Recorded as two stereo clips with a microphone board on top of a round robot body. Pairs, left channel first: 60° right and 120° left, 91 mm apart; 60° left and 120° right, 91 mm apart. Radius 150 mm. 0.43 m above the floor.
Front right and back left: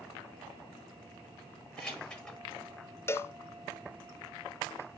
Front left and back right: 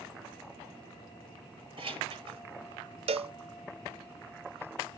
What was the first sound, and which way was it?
Keys jangling, 140° right.